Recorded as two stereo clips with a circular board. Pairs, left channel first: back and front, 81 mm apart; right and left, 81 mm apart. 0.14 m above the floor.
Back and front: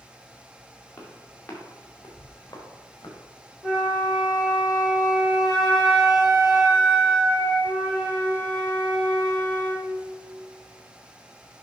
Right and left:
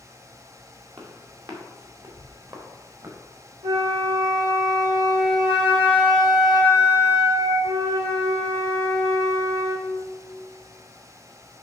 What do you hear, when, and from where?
1.0 s footsteps: 110° left, 3.5 m; by 3.2 s 130° left, 4 m
3.6 s a flute: 95° left, 3.5 m